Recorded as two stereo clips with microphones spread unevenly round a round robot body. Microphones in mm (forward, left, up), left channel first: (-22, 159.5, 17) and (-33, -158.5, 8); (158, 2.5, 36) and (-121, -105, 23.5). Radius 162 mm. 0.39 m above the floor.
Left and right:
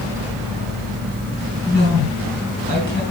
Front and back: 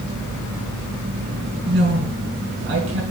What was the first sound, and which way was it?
A woman speaking, 150° left.